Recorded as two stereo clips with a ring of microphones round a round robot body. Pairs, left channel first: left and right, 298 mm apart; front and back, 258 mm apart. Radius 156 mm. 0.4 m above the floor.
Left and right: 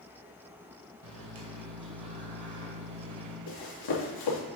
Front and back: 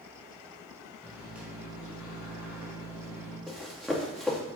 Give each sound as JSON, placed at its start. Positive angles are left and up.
{"t": 1.0, "sound": "a microwave", "azimuth_deg": -95, "distance_m": 1.6}
{"t": 3.5, "sound": "running footsteps", "azimuth_deg": 90, "distance_m": 2.5}